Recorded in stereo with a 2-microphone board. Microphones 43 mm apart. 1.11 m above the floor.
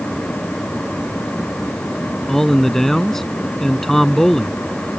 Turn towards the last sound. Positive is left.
turn(degrees=10)  # may be behind; listen again after turning